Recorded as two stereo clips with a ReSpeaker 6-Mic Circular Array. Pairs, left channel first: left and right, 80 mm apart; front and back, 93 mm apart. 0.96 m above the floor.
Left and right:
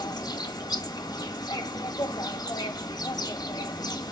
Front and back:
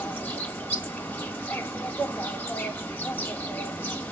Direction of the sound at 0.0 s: 70° left.